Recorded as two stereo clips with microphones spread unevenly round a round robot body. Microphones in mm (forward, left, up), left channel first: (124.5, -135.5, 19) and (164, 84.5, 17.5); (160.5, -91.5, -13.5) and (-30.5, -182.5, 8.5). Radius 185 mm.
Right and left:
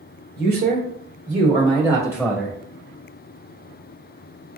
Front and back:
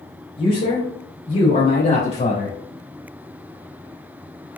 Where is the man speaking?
75° left, 1.7 m; by 2.6 s 10° right, 2.0 m.